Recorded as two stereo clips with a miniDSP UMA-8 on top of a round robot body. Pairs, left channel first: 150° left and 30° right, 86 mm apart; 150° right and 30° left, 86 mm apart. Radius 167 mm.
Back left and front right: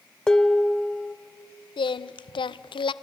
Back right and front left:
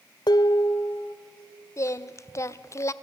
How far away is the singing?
About 0.5 m.